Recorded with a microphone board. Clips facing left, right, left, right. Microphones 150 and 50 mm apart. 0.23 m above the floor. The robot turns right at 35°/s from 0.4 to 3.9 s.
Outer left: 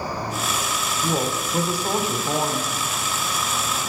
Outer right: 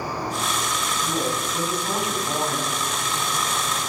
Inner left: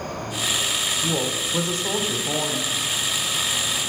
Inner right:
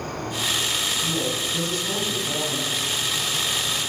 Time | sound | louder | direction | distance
0.0 | an insect | even, even | 125° right | 8 m
1.0 | a woman speaking | outer left 3 dB, inner left 1 dB | 100° left | 1.6 m